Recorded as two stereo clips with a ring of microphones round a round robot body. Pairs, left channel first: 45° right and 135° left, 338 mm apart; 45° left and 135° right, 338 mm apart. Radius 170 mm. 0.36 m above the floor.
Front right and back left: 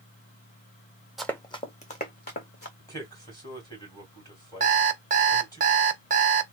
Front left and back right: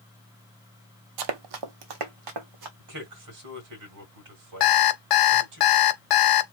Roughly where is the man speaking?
Behind right.